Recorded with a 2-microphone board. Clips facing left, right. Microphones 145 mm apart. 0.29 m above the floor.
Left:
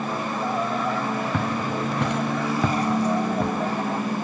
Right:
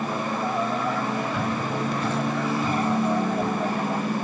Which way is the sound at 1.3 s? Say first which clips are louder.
Left 1 dB; 65° left (ahead or behind).